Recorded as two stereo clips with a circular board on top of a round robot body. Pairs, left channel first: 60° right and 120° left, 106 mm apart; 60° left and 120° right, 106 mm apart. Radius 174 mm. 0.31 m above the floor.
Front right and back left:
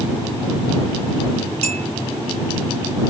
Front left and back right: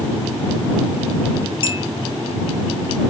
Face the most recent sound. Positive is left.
turn(degrees=100)